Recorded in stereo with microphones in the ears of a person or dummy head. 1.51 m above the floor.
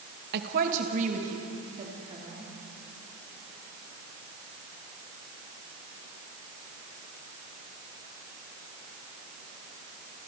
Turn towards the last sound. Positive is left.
turn(degrees=-30)  # may be behind; listen again after turning